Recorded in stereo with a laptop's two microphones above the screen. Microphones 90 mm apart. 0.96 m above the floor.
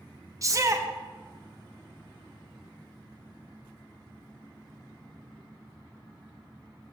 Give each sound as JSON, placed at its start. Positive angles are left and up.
{"t": 0.4, "sound": "a shout", "side_deg": -35, "distance_m": 0.7}